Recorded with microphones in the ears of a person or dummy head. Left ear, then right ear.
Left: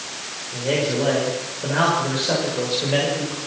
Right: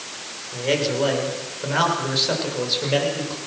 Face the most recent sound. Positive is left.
turn(degrees=-30)  # may be behind; listen again after turning